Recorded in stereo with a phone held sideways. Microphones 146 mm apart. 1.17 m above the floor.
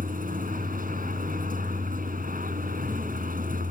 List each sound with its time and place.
0.0 s a vehicle: 70° right (ahead or behind)